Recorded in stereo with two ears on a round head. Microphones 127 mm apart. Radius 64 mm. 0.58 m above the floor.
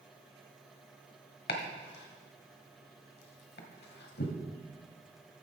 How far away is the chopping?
About 1.4 m.